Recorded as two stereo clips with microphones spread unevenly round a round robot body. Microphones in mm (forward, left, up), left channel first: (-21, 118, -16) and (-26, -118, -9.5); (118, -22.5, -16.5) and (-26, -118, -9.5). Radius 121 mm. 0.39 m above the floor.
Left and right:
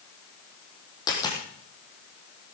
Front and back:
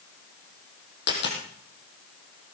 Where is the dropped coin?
15° left, 3.5 m.